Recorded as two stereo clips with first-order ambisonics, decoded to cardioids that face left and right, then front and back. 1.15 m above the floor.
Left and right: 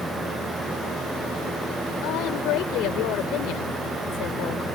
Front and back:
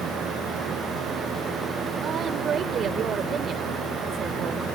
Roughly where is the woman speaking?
Behind left.